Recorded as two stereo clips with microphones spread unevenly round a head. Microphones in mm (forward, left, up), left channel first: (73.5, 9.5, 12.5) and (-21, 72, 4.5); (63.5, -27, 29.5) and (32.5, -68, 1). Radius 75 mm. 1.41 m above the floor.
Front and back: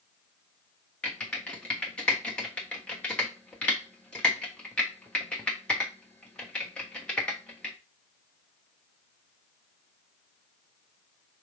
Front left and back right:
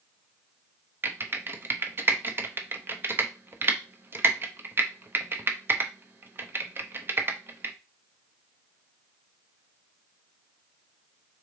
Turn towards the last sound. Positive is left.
turn(degrees=-115)